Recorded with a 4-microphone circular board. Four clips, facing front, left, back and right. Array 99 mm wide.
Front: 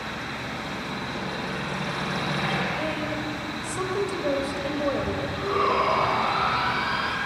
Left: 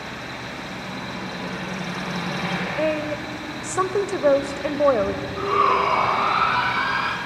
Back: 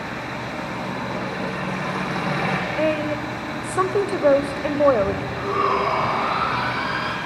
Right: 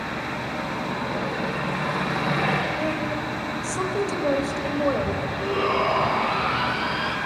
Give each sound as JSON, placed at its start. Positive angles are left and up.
{"t": 0.0, "sound": "an engine running", "azimuth_deg": -140, "distance_m": 6.0}
{"t": 2.8, "sound": "a woman speaking", "azimuth_deg": 150, "distance_m": 1.5}
{"t": 5.4, "sound": "a shout", "azimuth_deg": 100, "distance_m": 5.5}